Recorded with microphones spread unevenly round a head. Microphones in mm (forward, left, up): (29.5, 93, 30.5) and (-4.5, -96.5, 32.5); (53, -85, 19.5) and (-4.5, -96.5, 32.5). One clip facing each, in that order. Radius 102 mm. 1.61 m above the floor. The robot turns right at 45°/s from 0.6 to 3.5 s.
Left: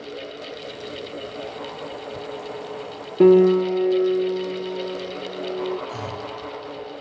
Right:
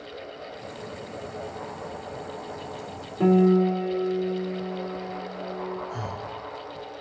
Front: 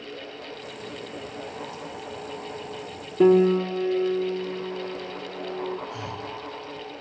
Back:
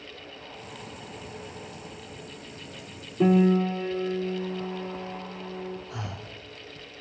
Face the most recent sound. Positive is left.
turn(degrees=125)